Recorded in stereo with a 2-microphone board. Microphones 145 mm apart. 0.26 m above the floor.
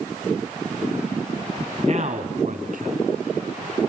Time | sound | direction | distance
1.8 | a man speaking | 45° right (ahead or behind) | 2.5 m